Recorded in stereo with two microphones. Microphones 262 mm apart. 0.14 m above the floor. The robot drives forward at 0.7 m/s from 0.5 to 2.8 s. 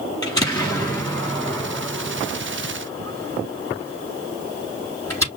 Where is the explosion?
15° left (ahead or behind), 4 m; by 5.3 s 10° left (ahead or behind), 5.5 m.